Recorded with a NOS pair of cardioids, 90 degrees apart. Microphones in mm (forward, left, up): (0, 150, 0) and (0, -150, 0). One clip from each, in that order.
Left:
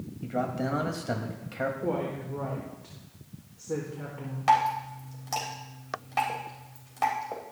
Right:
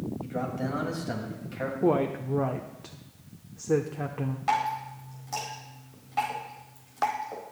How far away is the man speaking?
About 2 m.